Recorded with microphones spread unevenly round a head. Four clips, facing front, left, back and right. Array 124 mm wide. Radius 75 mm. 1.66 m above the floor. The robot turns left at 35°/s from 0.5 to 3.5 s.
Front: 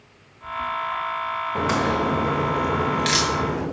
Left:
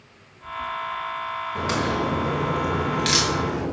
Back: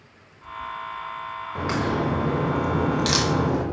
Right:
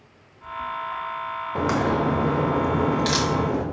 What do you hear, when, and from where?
1.6 s a crack: 65° right, 0.8 m; by 3.6 s 135° right, 0.8 m